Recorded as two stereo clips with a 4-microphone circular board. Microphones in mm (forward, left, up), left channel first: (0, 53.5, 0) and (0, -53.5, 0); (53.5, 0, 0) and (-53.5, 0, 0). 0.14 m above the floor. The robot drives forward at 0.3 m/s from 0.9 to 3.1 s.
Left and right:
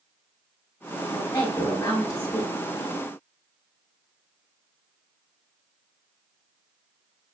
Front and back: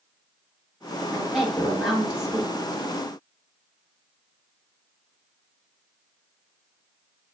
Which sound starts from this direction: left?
A woman speaking, at 1.1 s.